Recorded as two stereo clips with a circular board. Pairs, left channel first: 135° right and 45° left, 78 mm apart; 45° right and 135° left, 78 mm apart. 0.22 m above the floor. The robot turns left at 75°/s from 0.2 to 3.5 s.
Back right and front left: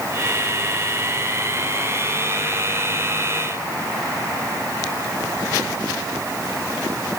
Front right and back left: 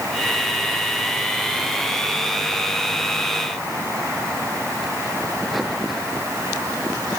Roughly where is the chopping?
No chopping in this recording.